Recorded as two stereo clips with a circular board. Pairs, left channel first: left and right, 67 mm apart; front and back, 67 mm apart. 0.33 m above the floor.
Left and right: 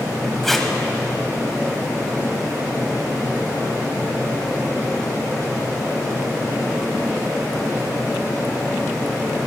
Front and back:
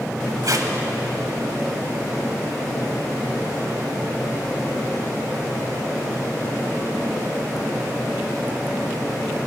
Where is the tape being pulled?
175° left, 0.9 m.